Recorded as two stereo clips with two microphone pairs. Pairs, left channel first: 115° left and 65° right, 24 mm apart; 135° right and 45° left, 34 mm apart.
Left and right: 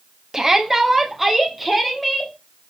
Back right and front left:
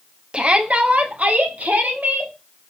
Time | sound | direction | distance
0.3 | a shout | straight ahead | 1.0 m